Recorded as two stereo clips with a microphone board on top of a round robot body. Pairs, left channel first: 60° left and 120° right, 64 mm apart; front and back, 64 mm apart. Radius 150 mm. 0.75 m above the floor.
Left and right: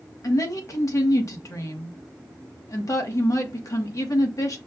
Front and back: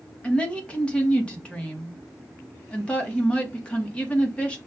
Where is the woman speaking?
70° left, 1.4 m.